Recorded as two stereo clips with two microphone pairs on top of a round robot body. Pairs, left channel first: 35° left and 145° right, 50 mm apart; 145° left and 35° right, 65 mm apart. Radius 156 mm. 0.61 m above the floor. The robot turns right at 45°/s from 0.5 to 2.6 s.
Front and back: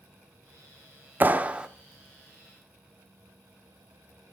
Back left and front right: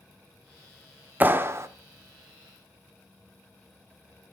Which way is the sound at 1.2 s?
95° right.